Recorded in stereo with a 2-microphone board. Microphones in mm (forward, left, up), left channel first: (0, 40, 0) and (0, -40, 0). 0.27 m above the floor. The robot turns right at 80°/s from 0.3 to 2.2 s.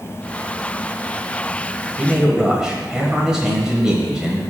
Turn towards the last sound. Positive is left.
turn(degrees=-10)  # may be behind; listen again after turning